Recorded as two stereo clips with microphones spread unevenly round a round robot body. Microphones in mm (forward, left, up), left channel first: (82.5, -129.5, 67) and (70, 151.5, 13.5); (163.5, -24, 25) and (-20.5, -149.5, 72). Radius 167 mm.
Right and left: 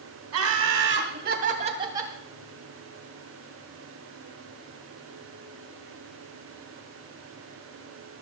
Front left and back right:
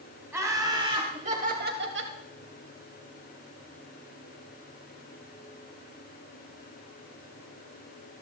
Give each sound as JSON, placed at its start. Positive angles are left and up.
{"t": 0.3, "sound": "laughter", "azimuth_deg": 130, "distance_m": 3.0}